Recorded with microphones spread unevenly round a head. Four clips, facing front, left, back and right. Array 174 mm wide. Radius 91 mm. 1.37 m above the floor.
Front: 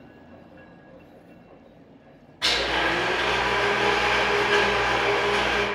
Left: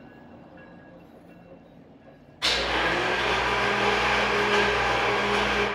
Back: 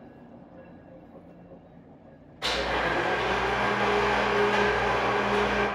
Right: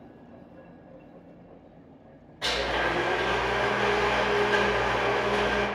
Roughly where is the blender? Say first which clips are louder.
Left 1 dB, front 2 dB; ahead right.